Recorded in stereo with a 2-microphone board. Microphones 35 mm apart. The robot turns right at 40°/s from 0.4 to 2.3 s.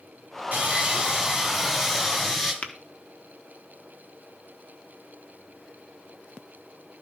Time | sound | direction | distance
0.5 | sawing | 55° right | 9 m
2.6 | tapping | 50° left (ahead or behind) | 1.3 m